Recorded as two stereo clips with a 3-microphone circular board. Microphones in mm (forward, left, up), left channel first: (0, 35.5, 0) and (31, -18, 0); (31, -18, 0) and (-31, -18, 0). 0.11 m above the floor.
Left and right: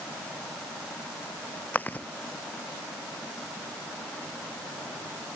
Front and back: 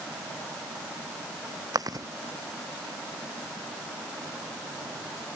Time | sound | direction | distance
1.7 | chewing | straight behind | ?